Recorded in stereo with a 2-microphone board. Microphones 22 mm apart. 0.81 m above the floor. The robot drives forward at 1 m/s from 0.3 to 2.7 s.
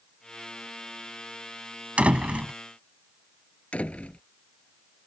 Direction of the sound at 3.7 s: 75° left (ahead or behind).